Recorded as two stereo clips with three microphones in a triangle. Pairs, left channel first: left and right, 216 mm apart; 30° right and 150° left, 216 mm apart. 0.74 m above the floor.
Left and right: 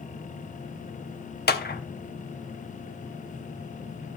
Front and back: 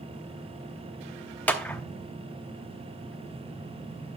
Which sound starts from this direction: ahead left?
A clap, at 1.5 s.